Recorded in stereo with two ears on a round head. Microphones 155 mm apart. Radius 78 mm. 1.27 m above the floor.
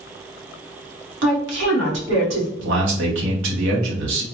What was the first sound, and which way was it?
A woman speaking, 85° right.